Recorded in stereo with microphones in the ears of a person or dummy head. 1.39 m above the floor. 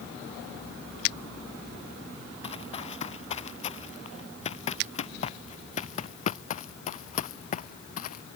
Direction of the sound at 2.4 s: 30° left (ahead or behind).